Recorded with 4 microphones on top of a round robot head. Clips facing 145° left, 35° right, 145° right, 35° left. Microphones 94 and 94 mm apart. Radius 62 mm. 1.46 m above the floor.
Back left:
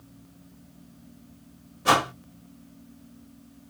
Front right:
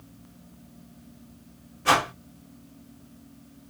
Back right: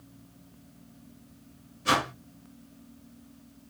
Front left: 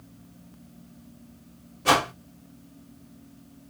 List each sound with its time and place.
1.9 s a whoosh: 75° left, 1.3 m